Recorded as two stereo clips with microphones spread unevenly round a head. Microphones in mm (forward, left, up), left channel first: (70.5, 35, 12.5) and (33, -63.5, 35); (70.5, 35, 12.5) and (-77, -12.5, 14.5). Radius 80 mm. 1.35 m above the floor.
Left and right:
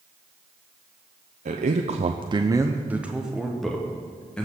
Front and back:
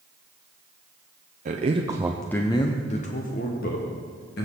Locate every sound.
1.4 s a man speaking: 125° right, 0.6 m; by 4.5 s 10° right, 1.7 m